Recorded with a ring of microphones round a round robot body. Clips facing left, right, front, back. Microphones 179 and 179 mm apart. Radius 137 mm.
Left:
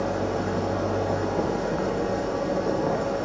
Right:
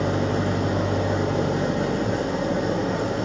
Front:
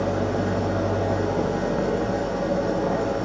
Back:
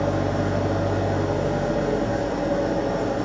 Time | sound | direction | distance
0.0 | an engine running | 105° right | 1.9 m